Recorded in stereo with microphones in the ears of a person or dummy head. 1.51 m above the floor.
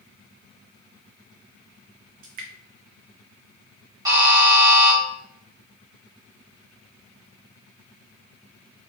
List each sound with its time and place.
2.2 s dripping: 50° right (ahead or behind), 0.8 m
4.0 s a buzzer: 20° right (ahead or behind), 2.5 m